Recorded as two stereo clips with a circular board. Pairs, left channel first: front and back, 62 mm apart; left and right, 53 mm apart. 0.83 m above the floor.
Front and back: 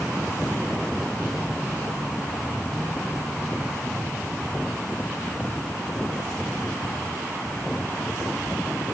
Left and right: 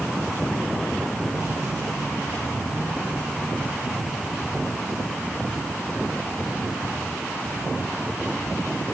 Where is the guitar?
No guitar in this recording.